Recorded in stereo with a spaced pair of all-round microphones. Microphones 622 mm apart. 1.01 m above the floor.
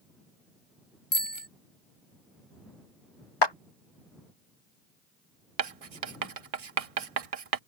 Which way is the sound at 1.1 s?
35° left (ahead or behind).